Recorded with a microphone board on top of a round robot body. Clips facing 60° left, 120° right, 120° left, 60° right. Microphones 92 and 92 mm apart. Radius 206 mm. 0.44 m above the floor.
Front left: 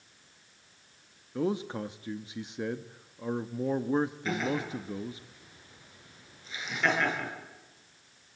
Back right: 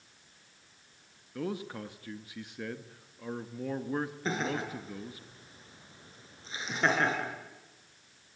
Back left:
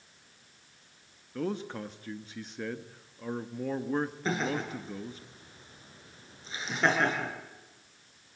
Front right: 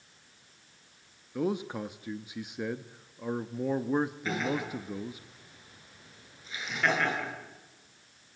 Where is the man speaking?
10° left, 1.3 m.